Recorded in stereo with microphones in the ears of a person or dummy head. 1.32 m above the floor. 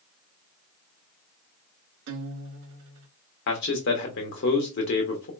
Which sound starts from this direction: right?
A guitar, at 2.1 s.